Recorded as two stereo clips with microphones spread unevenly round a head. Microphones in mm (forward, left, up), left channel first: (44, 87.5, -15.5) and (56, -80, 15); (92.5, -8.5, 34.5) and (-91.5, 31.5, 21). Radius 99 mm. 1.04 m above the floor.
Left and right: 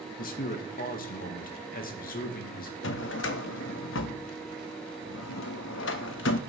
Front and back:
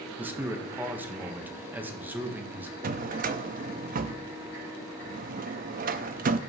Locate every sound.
0.2 s a man speaking: 90° left, 1.2 m
2.8 s a drawer: 120° left, 0.6 m